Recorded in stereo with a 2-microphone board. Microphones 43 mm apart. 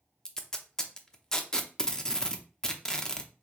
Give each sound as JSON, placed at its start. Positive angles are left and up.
{"t": 0.2, "sound": "tape being pulled", "side_deg": 20, "distance_m": 0.6}